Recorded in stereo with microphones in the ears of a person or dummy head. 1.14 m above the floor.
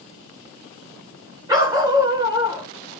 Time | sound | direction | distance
1.5 | a dog barking | 15° right (ahead or behind) | 1.6 m